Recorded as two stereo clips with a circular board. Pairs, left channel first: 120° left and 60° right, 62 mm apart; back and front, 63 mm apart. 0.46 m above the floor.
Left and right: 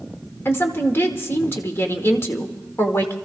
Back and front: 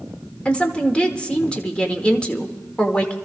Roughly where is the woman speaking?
Behind left.